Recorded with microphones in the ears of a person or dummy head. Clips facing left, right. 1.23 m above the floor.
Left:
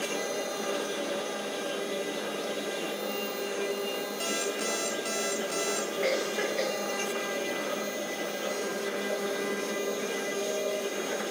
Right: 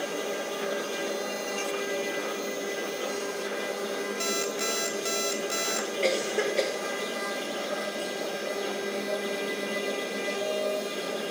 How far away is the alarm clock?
About 0.5 m.